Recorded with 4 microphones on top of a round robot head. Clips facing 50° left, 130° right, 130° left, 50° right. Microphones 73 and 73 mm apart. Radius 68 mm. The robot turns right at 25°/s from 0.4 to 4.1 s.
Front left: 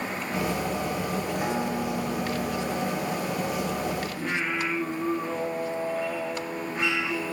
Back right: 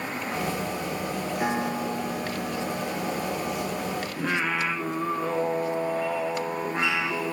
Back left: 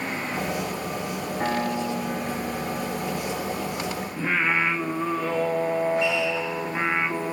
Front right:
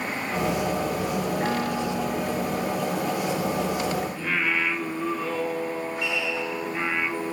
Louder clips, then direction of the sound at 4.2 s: Back right 2 dB, back left 2 dB; 160° right.